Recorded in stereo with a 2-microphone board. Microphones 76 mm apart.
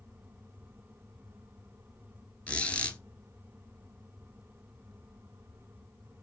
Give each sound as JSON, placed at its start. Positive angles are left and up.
{"t": 2.5, "sound": "a squeak", "side_deg": 15, "distance_m": 0.8}